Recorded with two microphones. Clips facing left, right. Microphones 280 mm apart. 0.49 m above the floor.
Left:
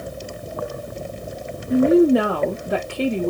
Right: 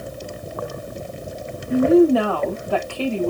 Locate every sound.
1.7 s a woman speaking: 20° left (ahead or behind), 0.8 m